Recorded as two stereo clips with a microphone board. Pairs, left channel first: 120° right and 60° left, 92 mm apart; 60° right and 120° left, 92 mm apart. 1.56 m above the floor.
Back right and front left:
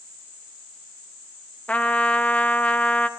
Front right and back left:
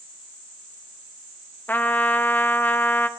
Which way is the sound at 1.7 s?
75° right.